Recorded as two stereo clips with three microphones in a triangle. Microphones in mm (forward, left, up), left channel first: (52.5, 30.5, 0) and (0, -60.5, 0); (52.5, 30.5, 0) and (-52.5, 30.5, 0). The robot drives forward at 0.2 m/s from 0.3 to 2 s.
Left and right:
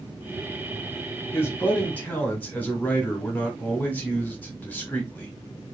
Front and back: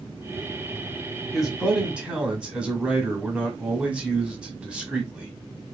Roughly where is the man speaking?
Left.